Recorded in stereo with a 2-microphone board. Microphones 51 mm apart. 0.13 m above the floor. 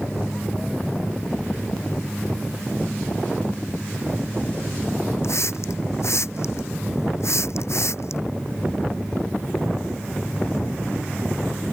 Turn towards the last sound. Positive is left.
turn(degrees=65)  # may be behind; listen again after turning